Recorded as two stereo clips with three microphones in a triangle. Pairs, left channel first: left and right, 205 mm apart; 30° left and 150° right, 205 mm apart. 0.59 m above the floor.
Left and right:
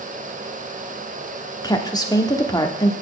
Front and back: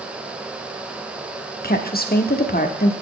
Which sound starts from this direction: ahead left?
A woman speaking, at 1.6 s.